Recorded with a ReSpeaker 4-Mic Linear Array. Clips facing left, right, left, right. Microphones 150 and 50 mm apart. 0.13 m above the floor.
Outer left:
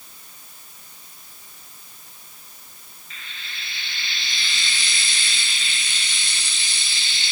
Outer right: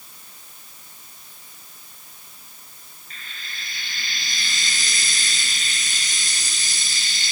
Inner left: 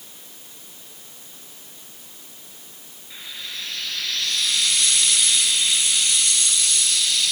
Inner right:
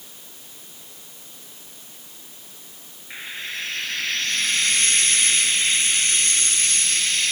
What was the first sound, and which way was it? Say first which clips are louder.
Frying: even, inner right 4 dB; 45° right (ahead or behind).